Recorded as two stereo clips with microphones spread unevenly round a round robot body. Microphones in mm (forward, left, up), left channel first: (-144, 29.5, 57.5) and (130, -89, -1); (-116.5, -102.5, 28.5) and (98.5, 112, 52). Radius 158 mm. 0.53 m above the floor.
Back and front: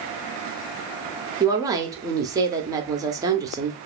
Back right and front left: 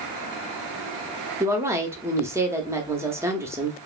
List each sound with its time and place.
1.4 s a woman speaking: 35° right, 0.6 m